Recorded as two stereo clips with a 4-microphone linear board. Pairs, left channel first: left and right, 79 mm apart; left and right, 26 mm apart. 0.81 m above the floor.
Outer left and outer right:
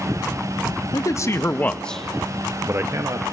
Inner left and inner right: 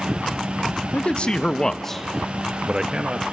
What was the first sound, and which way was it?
A man speaking, 45° left (ahead or behind).